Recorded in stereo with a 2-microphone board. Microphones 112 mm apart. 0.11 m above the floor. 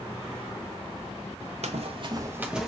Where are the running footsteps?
75° right (ahead or behind), 0.8 m; by 2.7 s centre (ahead or behind), 0.8 m.